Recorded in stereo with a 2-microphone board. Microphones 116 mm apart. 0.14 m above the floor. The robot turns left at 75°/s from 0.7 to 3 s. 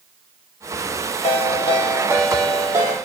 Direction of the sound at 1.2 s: 90° left.